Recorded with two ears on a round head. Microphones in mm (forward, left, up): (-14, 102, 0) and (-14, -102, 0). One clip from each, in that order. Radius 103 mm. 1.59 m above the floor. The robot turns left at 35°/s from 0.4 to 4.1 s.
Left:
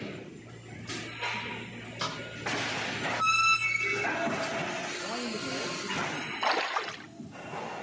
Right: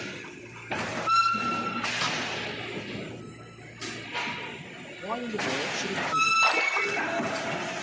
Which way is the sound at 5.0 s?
60° right (ahead or behind).